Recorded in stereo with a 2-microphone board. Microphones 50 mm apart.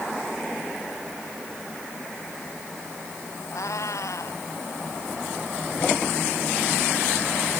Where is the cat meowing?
80° left.